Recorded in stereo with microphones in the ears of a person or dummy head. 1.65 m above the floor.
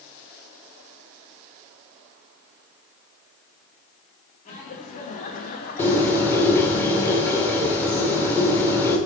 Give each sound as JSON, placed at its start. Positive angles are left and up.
{"t": 4.5, "sound": "laughter", "side_deg": 40, "distance_m": 2.5}
{"t": 5.8, "sound": "a bird", "side_deg": 10, "distance_m": 2.0}